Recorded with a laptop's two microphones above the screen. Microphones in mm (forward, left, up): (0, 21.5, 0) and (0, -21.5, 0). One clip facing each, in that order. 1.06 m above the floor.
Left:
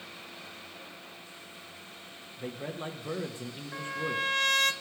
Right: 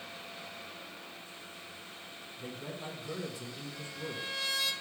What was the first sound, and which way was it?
A man speaking, 40° left (ahead or behind).